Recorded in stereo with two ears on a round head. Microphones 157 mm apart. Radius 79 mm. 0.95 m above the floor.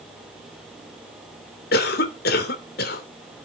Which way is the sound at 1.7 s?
55° left (ahead or behind).